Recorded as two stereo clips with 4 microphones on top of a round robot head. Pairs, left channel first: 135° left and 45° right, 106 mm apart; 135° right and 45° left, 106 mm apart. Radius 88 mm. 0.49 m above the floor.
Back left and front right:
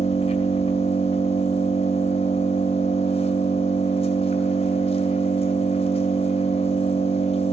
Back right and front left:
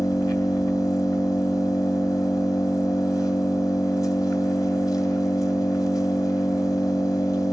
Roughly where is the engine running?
Behind.